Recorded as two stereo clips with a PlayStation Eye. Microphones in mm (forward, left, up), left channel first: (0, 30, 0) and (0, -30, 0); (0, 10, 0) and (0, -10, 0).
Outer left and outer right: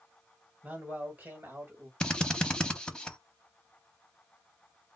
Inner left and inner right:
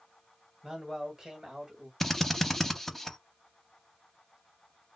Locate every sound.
0.6 s a man speaking: 25° right (ahead or behind), 1.5 m; by 1.9 s 40° right (ahead or behind), 1.4 m
2.0 s a drill: 15° left (ahead or behind), 0.6 m